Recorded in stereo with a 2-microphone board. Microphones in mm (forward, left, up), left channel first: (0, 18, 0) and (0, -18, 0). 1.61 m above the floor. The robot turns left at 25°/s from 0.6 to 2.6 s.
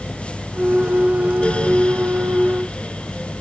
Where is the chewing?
I don't hear chewing.